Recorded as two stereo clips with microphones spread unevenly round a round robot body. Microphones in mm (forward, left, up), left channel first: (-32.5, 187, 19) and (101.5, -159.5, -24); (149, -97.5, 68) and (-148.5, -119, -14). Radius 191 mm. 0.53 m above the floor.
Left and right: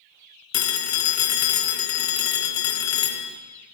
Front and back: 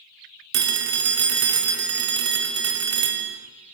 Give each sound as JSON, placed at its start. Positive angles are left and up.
{"t": 0.5, "sound": "a phone ringing", "azimuth_deg": 170, "distance_m": 0.7}